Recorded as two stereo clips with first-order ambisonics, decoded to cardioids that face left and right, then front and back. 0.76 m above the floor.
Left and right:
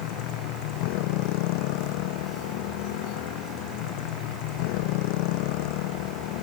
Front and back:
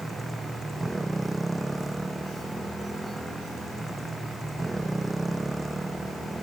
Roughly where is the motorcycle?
Left.